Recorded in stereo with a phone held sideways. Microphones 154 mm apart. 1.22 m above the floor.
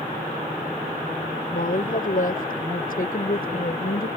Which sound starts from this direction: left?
A woman speaking, at 1.5 s.